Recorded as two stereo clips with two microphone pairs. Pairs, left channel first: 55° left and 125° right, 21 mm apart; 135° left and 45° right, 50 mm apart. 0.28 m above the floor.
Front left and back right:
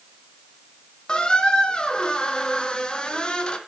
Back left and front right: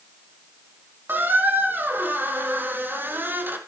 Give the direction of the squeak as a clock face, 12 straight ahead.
12 o'clock.